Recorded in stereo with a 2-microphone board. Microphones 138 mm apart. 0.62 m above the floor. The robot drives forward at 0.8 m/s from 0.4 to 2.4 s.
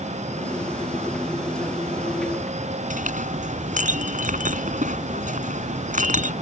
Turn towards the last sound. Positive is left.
turn(degrees=-70)  # may be behind; listen again after turning